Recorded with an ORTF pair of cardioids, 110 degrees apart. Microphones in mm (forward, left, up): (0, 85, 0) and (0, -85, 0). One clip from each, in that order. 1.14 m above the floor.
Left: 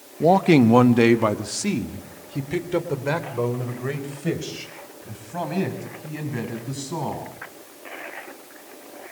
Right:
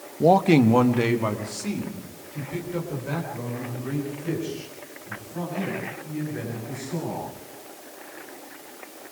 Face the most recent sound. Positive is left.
turn(degrees=75)